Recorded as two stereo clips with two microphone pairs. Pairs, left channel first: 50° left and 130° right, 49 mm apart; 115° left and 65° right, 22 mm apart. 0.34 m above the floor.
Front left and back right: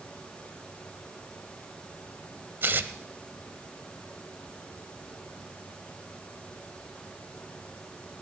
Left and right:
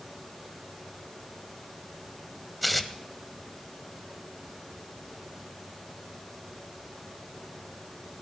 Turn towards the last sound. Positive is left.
turn(degrees=-155)